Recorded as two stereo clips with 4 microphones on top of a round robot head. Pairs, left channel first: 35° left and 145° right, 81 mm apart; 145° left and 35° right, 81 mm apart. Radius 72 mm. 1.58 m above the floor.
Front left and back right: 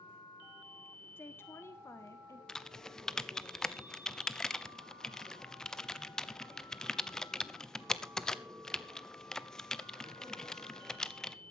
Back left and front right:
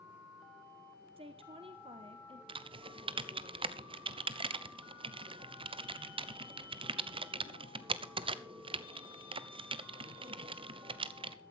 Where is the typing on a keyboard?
45° right, 0.8 m.